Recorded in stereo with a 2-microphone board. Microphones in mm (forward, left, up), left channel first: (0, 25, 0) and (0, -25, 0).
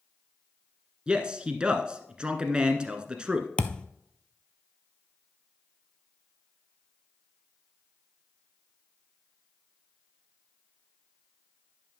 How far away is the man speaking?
About 1.1 m.